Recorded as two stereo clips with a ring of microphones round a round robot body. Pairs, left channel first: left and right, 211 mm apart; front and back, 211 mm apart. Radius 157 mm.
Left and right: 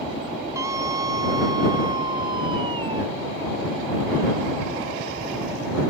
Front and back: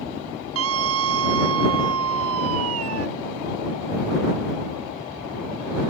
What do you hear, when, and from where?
0.6 s a scream: 170° right; by 3.1 s 165° right